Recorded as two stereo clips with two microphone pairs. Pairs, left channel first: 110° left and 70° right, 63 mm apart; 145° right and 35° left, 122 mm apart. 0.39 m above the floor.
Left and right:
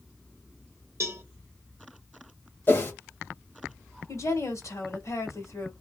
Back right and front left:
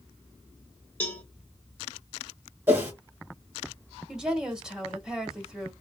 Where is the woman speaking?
120° left, 1.4 m.